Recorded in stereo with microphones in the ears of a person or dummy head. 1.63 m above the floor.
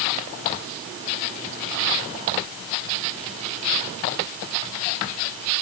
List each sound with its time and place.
Only background noise.